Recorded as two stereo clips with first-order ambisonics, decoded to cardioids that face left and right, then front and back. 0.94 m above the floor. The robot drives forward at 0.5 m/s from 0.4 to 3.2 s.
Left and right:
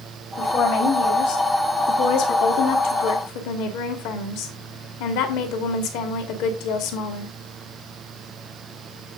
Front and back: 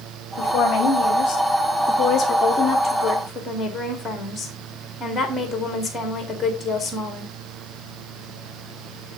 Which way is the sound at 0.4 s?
50° left.